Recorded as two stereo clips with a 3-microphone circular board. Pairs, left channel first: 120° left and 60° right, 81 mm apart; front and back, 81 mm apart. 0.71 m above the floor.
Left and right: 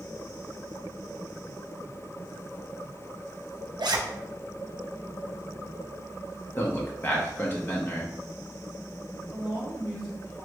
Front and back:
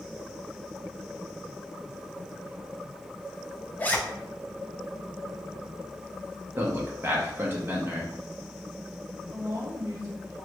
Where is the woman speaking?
150° right, 2.0 m.